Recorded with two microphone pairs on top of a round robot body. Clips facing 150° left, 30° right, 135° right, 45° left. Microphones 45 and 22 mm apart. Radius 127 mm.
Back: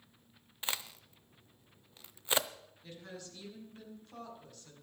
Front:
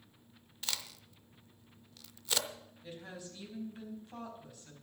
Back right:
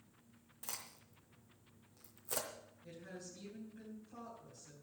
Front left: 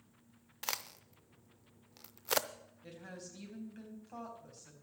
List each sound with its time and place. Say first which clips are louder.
0.6 s a crack: back 2 dB, front left 9 dB; 75° left, 0.7 m
2.8 s a woman speaking: front 2 dB, front left 2 dB; 35° left, 4.5 m